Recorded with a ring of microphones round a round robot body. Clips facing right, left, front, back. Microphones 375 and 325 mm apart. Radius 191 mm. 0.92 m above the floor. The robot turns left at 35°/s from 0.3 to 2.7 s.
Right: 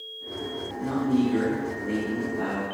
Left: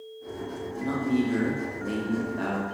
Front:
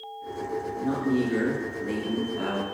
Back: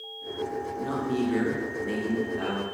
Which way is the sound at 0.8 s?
135° left.